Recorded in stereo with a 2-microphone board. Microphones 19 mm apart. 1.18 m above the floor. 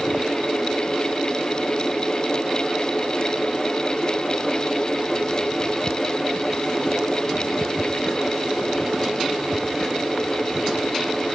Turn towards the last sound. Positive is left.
No sound to turn to.